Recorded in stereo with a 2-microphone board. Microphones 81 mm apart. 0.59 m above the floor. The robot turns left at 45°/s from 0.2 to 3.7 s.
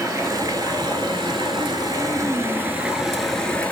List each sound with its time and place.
0.0 s running water: 45° right, 1.0 m; by 3.7 s 160° left, 1.0 m